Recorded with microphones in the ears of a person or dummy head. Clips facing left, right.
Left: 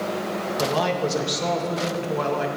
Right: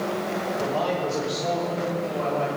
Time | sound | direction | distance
0.6 | a man speaking | 80° left | 2 m